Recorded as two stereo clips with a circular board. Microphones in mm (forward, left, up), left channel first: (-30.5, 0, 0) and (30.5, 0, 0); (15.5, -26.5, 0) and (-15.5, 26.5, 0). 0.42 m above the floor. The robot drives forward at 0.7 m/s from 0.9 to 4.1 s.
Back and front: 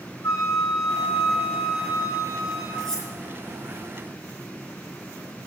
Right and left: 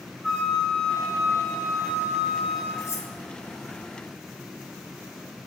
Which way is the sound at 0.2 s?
140° right.